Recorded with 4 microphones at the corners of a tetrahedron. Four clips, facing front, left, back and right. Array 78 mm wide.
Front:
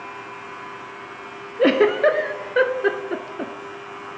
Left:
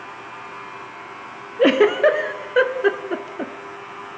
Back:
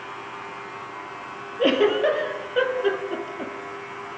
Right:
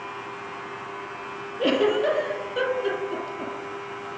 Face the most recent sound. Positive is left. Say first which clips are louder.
# left 7 dB, front 3 dB
turn(degrees=60)